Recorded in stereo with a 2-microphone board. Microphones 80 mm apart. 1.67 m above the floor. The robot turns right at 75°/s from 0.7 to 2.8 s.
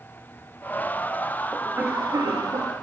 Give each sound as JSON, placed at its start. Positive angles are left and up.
{"t": 1.5, "sound": "a cough", "azimuth_deg": -175, "distance_m": 2.5}